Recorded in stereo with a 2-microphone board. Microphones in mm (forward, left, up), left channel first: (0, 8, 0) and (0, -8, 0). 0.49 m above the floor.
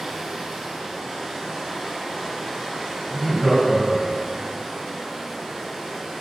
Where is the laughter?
30° right (ahead or behind), 1.3 m.